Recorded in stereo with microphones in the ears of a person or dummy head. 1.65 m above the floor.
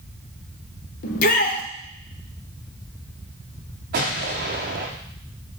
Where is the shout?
50° left (ahead or behind), 1.0 m.